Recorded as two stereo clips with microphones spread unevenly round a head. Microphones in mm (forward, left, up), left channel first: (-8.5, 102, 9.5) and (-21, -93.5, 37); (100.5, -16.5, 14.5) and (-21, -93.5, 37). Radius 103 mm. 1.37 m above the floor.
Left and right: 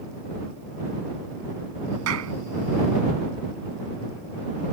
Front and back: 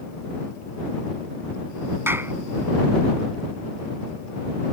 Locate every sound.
2.1 s a clap: 75° right